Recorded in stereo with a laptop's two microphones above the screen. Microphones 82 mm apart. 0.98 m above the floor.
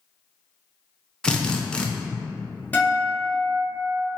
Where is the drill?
10° left (ahead or behind), 0.6 m.